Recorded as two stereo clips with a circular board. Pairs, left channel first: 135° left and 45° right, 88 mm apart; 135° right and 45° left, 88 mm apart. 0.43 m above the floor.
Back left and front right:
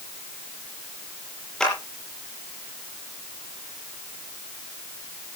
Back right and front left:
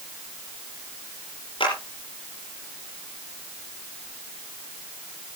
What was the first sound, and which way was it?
A clap, 145° right.